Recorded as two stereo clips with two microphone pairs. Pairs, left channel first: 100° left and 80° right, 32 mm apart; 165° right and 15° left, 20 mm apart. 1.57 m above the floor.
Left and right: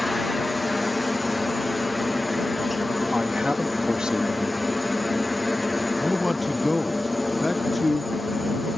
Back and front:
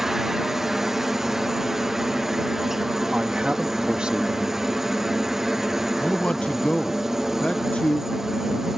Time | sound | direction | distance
0.0 | a helicopter | 10° left | ?
3.1 | a man speaking | 15° right | ?
6.0 | a man speaking | 170° right | ?